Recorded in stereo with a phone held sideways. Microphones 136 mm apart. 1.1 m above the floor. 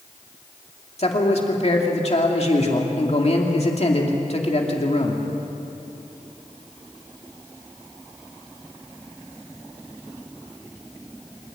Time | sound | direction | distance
1.0 | a man speaking | 50° left (ahead or behind) | 2.5 m